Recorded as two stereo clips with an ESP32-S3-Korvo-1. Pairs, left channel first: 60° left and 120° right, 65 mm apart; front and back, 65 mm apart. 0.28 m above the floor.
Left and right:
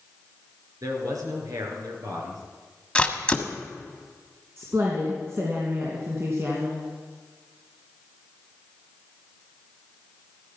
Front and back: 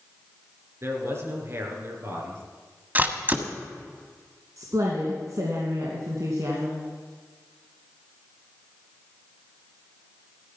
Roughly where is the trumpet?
No trumpet in this recording.